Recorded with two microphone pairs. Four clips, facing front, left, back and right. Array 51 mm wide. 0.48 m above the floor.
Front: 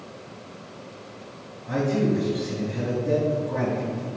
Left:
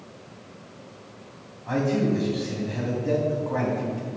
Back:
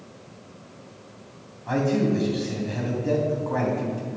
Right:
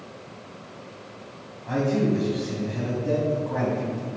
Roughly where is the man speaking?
Behind.